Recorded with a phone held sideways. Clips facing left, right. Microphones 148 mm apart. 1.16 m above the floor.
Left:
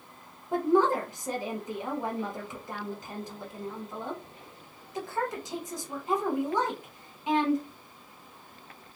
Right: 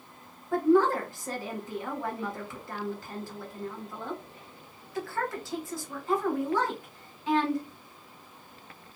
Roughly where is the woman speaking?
Centre.